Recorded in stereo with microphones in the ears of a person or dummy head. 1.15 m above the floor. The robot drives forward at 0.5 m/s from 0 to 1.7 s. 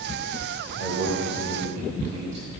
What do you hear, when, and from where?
0.8 s a man speaking: 40° right (ahead or behind), 5.5 m